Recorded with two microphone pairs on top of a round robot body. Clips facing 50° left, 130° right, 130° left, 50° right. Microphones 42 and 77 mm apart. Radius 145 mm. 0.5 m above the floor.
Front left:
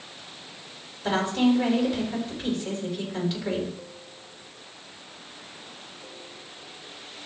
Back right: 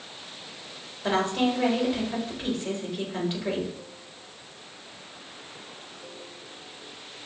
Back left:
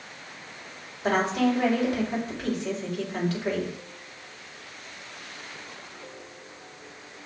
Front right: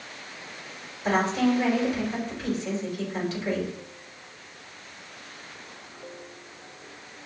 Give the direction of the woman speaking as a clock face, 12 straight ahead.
7 o'clock.